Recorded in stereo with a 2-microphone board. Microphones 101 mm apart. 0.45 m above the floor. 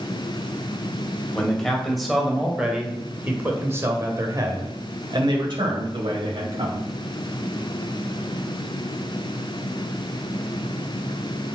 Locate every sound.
1.4 s a man speaking: 5° left (ahead or behind), 2.5 m; by 6.9 s 65° right (ahead or behind), 2.5 m